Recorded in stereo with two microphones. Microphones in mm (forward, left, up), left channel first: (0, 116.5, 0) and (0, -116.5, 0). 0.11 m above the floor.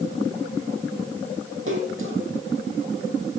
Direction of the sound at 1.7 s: 60° right (ahead or behind).